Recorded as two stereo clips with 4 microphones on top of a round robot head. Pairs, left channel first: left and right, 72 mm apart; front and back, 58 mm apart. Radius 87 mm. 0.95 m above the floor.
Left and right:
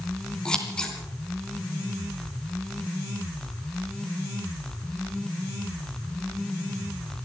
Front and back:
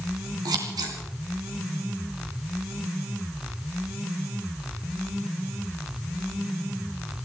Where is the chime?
No chime in this recording.